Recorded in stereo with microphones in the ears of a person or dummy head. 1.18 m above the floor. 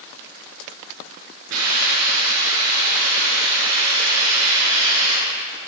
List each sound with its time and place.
1.5 s a hiss: 80° right, 7 m